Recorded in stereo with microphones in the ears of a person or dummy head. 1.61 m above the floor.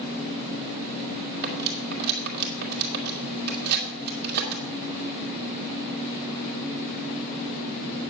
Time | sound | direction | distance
1.4 | cutlery clinking | 50° right (ahead or behind) | 2 m